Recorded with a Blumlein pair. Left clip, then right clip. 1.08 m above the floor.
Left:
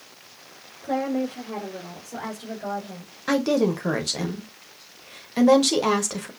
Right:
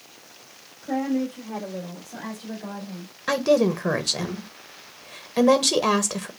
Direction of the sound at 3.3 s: 5° right.